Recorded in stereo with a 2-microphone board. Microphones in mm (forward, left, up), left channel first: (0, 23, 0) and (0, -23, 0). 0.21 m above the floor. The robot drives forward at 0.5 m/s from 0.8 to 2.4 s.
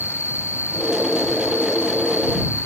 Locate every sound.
0.0 s an insect: 75° left (ahead or behind)